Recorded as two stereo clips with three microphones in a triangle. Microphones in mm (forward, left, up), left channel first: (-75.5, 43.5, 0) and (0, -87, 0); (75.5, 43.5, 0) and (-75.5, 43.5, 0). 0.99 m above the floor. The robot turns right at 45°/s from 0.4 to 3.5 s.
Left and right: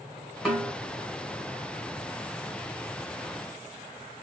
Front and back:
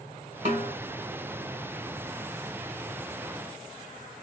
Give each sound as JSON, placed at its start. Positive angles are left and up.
{"t": 0.5, "sound": "a snare drum", "azimuth_deg": -150, "distance_m": 1.6}